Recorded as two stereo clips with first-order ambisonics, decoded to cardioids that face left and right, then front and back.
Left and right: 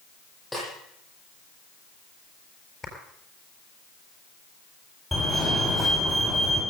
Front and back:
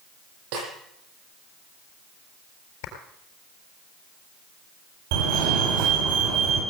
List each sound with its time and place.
0.5 s a snare drum: 175° left, 8 m
2.8 s a clap: 10° left, 4 m
5.1 s a fire alarm: 175° right, 6 m